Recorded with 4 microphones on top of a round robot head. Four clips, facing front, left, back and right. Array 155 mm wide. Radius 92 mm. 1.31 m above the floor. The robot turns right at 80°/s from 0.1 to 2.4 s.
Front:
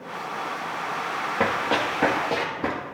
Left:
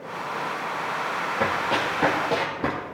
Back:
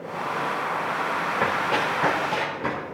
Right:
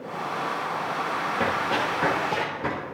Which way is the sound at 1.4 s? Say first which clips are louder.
Left 2 dB, front 2 dB; 10° right.